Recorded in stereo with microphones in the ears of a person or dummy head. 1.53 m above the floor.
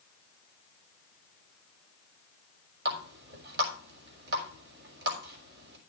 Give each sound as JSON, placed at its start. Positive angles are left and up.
{"t": 2.9, "sound": "a running tap", "side_deg": -65, "distance_m": 3.0}